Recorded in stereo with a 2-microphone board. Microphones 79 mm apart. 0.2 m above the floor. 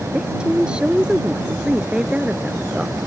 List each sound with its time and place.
0.1 s a woman speaking: 10° right (ahead or behind)